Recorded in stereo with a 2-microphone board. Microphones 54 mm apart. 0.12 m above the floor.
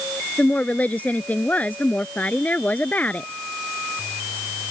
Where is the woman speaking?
30° left (ahead or behind).